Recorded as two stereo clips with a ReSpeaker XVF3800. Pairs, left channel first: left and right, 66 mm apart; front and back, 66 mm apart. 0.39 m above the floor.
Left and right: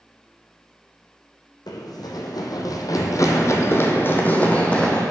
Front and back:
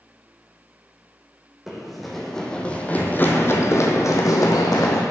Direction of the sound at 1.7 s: 95° left.